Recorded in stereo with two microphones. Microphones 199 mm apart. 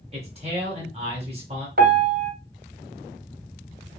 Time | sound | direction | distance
0.1 | a man speaking | 30° right (ahead or behind) | 1.6 m
1.8 | a piano | 50° right (ahead or behind) | 1.1 m